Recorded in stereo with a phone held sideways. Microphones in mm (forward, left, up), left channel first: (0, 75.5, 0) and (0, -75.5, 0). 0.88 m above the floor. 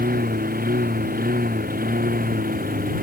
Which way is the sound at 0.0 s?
75° right (ahead or behind).